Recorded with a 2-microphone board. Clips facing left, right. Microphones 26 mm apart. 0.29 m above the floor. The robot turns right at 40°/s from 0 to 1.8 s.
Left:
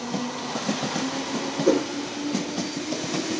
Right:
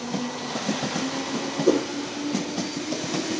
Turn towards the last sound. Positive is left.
turn(degrees=45)  # may be behind; listen again after turning